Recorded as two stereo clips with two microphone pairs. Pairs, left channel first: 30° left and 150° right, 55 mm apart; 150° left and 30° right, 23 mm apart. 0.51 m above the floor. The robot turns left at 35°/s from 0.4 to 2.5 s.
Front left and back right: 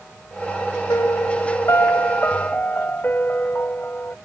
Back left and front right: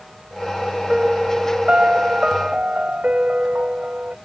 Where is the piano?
35° left; by 4.2 s 25° right.